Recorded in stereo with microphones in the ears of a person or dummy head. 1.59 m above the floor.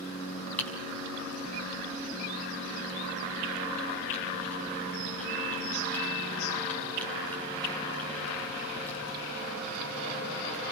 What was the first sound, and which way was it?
Typing on a keyboard, 10° left (ahead or behind).